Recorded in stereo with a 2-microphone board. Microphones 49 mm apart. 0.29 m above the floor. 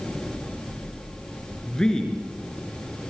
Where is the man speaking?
15° left (ahead or behind), 4 m.